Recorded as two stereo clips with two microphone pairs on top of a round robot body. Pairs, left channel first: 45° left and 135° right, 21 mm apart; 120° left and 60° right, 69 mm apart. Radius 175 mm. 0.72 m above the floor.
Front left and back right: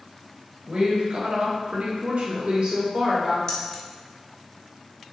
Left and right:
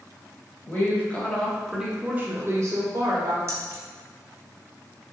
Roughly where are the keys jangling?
Ahead.